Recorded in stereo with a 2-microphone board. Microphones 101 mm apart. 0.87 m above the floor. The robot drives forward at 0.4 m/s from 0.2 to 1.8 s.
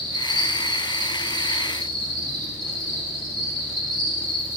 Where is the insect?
55° right (ahead or behind), 3 m; by 4.6 s 45° right (ahead or behind), 3.5 m.